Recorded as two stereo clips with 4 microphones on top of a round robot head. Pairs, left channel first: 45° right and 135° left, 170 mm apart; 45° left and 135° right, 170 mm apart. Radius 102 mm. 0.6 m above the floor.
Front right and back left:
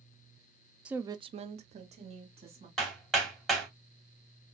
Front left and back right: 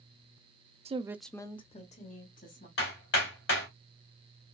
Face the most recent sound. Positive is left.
turn(degrees=40)